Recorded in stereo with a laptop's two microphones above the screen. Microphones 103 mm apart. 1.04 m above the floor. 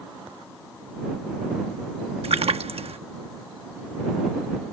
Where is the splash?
75° right (ahead or behind).